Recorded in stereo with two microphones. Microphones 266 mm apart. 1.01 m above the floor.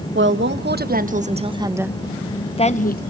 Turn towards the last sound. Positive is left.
turn(degrees=35)  # may be behind; listen again after turning